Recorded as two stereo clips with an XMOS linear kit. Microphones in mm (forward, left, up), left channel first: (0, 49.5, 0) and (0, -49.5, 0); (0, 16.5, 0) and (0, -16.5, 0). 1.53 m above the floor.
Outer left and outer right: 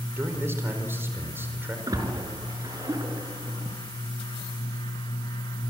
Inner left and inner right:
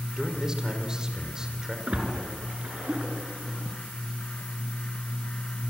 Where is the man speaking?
25° right (ahead or behind), 4.5 m.